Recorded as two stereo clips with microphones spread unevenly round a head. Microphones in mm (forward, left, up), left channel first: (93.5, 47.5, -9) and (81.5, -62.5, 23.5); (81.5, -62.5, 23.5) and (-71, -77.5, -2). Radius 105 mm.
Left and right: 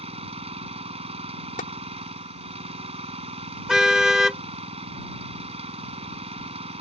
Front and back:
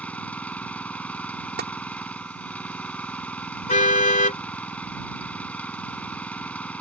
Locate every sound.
0.0 s an engine running: 75° right
1.6 s tapping: 135° left
3.7 s a car horn: 20° right